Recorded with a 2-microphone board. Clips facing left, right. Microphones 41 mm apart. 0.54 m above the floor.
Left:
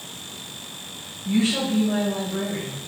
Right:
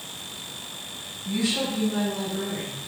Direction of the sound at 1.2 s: 35° left (ahead or behind).